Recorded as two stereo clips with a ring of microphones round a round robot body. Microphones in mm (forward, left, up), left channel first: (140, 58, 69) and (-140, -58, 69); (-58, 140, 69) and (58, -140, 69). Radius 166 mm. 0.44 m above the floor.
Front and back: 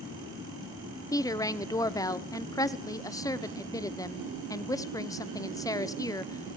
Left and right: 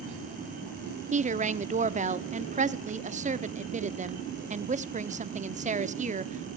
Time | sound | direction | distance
1.1 | a woman speaking | 40° right | 0.8 m